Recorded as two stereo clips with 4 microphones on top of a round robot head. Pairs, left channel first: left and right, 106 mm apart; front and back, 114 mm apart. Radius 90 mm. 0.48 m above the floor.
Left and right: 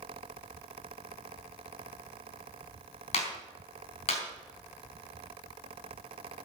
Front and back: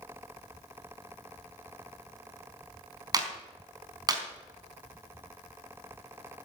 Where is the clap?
125° left, 4 m.